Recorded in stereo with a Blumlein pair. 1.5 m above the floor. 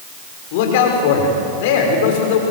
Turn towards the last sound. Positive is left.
turn(degrees=50)